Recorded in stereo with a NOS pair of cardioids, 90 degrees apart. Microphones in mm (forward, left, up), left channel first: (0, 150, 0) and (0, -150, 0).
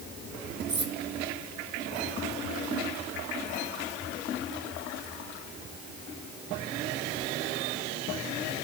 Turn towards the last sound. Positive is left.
turn(degrees=-35)